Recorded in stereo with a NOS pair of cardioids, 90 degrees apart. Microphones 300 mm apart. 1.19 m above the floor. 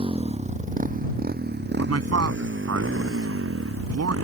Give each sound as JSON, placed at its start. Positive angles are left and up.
{"t": 0.0, "sound": "a motorcycle", "azimuth_deg": -15}
{"t": 1.8, "sound": "a man speaking", "azimuth_deg": -55}